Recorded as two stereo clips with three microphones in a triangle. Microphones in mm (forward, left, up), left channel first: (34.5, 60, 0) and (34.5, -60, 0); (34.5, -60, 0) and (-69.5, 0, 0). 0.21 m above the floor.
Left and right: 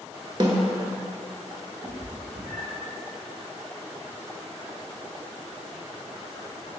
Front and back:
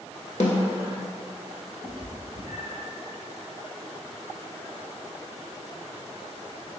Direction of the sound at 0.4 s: 35° right.